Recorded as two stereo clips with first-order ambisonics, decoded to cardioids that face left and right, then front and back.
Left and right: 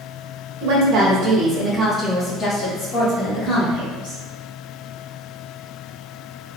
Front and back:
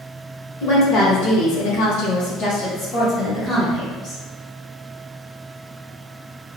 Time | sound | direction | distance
0.6 | a woman speaking | 50° right | 1.1 m